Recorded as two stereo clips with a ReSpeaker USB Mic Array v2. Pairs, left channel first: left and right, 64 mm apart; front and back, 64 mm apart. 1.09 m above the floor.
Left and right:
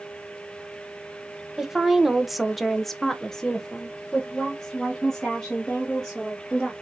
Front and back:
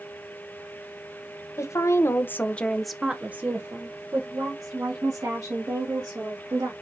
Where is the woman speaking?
5° right, 0.9 m; by 6.7 s 170° left, 2 m.